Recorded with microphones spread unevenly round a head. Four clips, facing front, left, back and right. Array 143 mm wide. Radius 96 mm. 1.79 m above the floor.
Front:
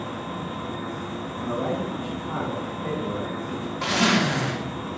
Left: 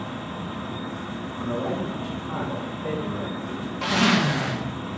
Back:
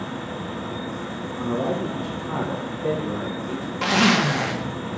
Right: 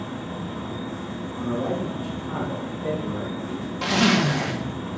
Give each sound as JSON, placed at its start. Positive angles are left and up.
{"t": 0.0, "sound": "a fan", "azimuth_deg": -150, "distance_m": 7.5}
{"t": 1.4, "sound": "a man speaking", "azimuth_deg": -170, "distance_m": 6.5}
{"t": 3.8, "sound": "a zipper", "azimuth_deg": -105, "distance_m": 1.6}